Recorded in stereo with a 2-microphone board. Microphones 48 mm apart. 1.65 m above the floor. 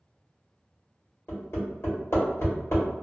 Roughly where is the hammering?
Left.